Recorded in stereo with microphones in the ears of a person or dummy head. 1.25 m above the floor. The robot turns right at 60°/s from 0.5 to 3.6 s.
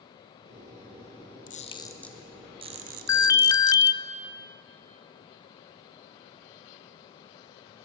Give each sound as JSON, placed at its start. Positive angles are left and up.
{"t": 1.5, "sound": "a camera shutter", "side_deg": 40, "distance_m": 1.0}
{"t": 3.1, "sound": "an alarm", "side_deg": 20, "distance_m": 0.7}